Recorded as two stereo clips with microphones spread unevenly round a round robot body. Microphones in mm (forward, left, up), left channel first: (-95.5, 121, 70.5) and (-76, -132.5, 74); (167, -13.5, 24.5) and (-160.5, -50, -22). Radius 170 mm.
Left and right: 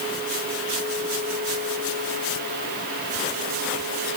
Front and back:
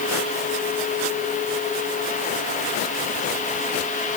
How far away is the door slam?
No door slam in this recording.